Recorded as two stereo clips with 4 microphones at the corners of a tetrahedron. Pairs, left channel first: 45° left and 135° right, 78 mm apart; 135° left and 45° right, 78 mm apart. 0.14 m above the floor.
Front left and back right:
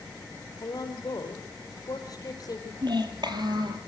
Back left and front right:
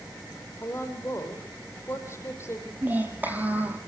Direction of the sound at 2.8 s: 115° right.